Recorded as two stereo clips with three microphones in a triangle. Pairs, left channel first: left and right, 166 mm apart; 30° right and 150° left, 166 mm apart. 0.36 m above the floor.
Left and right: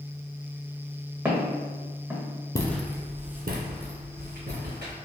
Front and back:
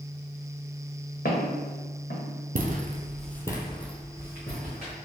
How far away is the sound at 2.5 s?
About 0.6 m.